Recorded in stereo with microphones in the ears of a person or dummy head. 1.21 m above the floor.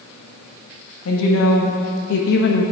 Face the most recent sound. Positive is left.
turn(degrees=55)  # may be behind; listen again after turning